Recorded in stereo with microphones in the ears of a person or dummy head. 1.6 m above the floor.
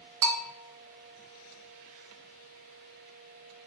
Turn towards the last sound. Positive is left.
turn(degrees=-70)  # may be behind; listen again after turning